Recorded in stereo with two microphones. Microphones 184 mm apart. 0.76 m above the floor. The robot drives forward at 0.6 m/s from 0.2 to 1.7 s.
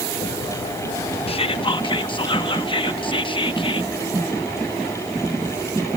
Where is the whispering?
30° left (ahead or behind), 0.8 m.